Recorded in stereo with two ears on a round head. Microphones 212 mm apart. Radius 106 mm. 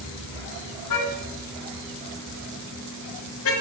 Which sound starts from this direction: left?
A car horn, at 0.9 s.